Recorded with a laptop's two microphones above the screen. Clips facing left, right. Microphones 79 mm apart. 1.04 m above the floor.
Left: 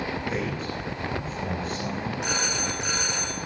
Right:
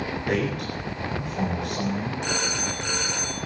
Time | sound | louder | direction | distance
0.3 | a man speaking | right 3 dB | 80° right | 9 m
2.2 | a phone ringing | right 1 dB | 5° left (ahead or behind) | 7 m